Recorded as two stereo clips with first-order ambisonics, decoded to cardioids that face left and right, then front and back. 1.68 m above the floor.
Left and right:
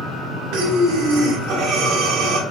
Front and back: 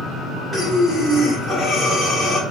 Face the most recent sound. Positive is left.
turn(degrees=-95)